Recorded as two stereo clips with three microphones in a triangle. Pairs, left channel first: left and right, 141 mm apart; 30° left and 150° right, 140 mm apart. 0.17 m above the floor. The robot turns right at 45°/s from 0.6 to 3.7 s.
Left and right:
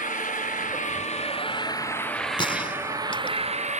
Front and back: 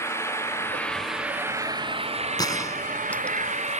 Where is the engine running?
100° left; by 3.8 s 120° right.